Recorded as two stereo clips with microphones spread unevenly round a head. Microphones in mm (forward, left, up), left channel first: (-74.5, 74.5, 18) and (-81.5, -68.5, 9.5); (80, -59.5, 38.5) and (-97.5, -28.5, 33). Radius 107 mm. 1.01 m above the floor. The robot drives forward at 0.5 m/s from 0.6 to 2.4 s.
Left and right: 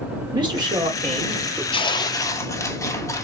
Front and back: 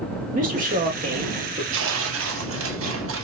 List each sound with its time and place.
0.3 s a man speaking: 150° right, 2 m; by 1.6 s 155° right, 2.5 m
1.7 s tearing paper: 145° left, 0.5 m; by 3.2 s 160° left, 0.8 m